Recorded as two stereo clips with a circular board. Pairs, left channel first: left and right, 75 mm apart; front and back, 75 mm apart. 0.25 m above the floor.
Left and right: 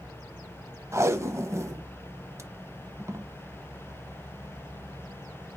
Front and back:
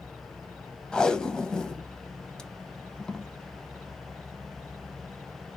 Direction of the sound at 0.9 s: 70° right.